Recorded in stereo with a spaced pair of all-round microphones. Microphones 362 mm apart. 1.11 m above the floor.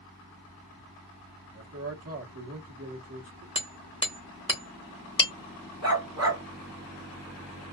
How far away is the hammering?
About 1.2 m.